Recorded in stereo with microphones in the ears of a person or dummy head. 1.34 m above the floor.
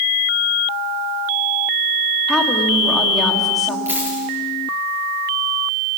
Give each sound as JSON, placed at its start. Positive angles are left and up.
{"t": 2.3, "sound": "a woman speaking", "side_deg": 5, "distance_m": 2.5}
{"t": 3.9, "sound": "a dropped coin", "side_deg": -10, "distance_m": 7.5}